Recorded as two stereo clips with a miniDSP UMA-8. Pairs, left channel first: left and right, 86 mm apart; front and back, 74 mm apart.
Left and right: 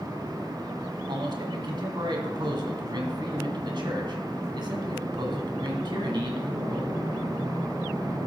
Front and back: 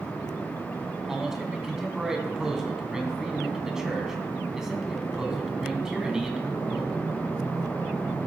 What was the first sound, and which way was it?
A man speaking, 100° right.